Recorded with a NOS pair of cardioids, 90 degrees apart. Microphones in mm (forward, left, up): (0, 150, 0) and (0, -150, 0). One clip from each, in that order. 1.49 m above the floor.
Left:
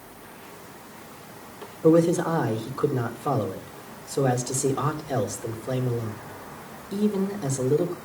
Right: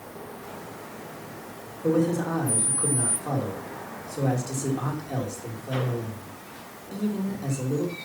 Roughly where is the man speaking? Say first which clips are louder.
Left 5 dB; ahead left.